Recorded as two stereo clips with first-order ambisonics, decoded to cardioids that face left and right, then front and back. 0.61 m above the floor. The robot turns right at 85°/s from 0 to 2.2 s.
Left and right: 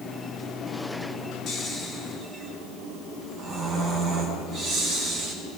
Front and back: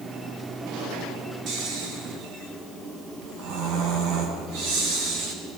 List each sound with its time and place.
1.5 s snoring: 140° left, 6 m; by 5.3 s 160° right, 6 m